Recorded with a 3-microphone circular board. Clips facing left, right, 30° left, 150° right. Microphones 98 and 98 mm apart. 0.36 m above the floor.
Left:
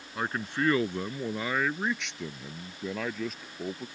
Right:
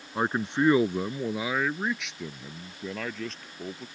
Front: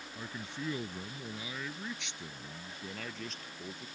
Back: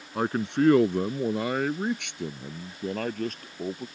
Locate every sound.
0.1 s a man speaking: 150° right; by 3.9 s 170° left